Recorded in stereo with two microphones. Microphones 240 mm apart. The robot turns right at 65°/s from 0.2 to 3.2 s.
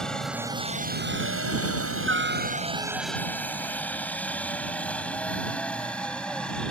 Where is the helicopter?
5° left (ahead or behind).